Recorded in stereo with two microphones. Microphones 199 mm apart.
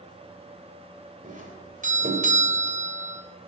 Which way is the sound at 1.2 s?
40° right (ahead or behind).